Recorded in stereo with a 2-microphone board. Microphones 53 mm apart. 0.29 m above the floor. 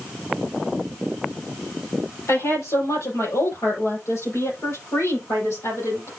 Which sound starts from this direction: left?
A woman speaking, at 2.3 s.